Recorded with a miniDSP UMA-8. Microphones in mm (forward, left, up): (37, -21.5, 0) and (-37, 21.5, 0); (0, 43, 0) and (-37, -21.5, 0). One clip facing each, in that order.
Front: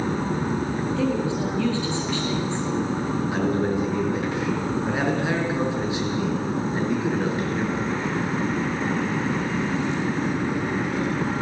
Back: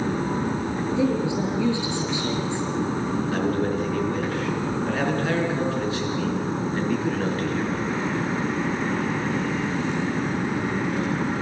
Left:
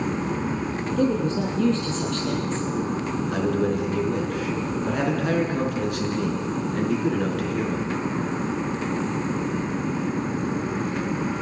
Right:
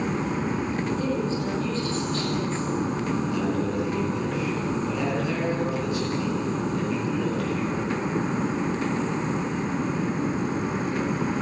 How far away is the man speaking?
About 4.5 m.